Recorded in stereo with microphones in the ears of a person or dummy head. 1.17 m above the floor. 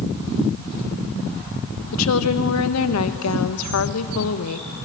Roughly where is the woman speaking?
Left.